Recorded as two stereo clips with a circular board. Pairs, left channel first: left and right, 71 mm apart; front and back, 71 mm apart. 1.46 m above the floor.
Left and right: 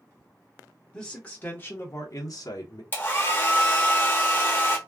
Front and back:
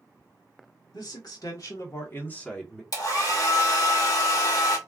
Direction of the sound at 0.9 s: 15° left.